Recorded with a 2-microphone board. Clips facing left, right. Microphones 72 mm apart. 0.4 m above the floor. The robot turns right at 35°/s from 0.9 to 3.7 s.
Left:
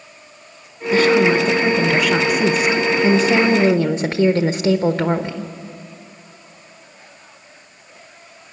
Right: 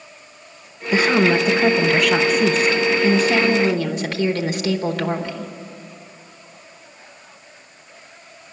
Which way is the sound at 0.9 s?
35° right.